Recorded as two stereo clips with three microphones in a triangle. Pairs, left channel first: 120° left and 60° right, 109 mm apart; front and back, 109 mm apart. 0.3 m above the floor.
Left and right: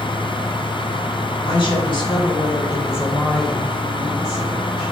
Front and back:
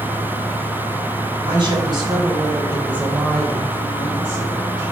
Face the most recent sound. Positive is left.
turn(degrees=-20)